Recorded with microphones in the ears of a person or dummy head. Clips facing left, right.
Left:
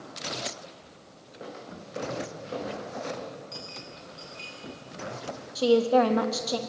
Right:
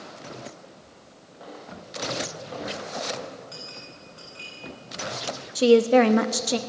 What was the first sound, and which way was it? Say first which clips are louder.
Footsteps: even; 30° left (ahead or behind).